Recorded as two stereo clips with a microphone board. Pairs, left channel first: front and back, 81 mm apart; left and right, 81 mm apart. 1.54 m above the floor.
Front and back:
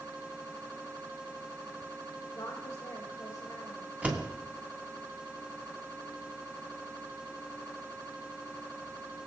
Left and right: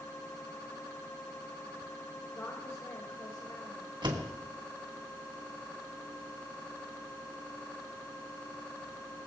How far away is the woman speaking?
About 2.5 m.